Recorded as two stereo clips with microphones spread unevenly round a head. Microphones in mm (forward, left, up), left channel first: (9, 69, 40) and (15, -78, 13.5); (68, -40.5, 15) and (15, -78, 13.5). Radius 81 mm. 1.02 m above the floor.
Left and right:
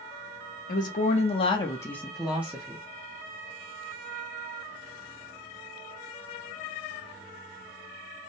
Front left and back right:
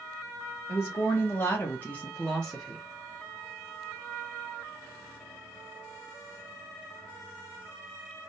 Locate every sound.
0.7 s a woman speaking: 80° left, 1.0 m; by 2.9 s 50° right, 0.9 m